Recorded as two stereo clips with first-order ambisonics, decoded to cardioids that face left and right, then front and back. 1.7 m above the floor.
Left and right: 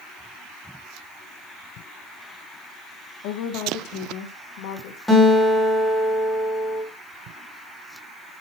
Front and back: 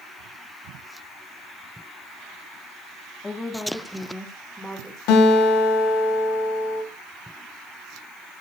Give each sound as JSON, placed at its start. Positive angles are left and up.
{"t": 3.2, "sound": "a woman speaking", "azimuth_deg": 75, "distance_m": 1.3}
{"t": 5.1, "sound": "a guitar", "azimuth_deg": 10, "distance_m": 4.5}